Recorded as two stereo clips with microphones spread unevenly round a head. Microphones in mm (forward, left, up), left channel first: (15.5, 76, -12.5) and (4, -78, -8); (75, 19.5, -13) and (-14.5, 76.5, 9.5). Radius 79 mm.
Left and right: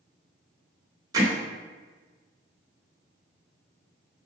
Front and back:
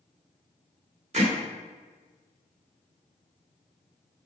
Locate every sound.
1.1 s hammering: 165° right, 2.5 m